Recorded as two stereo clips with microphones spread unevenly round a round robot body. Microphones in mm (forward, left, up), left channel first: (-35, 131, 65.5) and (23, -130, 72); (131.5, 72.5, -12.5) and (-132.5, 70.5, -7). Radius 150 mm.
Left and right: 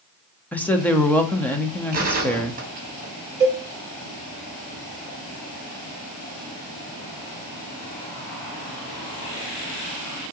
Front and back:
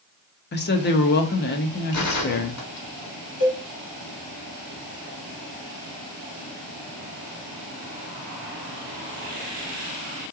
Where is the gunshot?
25° right, 1.9 m.